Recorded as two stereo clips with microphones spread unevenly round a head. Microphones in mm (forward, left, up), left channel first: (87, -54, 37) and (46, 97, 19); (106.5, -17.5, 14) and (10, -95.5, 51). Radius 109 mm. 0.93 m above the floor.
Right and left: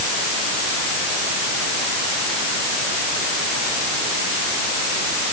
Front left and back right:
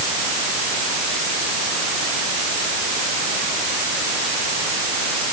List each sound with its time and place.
Only background noise.